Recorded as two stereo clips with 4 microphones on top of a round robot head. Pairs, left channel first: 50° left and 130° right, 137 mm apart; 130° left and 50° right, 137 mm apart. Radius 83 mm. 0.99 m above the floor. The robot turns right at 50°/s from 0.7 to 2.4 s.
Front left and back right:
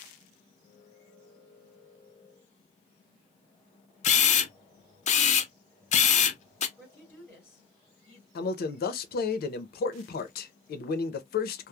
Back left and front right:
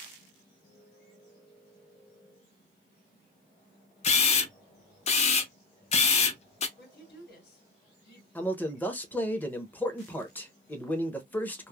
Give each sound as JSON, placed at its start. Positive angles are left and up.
{"t": 4.0, "sound": "a camera shutter", "azimuth_deg": 85, "distance_m": 0.6}
{"t": 6.8, "sound": "a woman speaking", "azimuth_deg": 125, "distance_m": 1.8}
{"t": 8.3, "sound": "a man speaking", "azimuth_deg": 55, "distance_m": 0.7}